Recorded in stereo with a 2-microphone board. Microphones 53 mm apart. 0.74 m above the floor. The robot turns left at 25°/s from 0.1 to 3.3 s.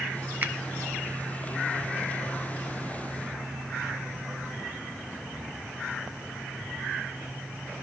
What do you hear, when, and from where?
0.4 s a finger snap: 35° right (ahead or behind), 0.6 m